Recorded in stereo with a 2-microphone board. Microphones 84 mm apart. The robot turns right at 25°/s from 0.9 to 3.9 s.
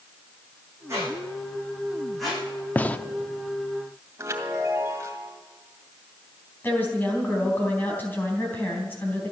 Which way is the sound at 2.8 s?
20° left (ahead or behind).